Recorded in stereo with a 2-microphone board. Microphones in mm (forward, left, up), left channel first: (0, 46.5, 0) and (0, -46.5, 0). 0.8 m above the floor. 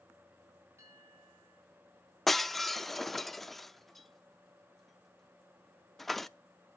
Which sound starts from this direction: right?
A bell, at 0.8 s.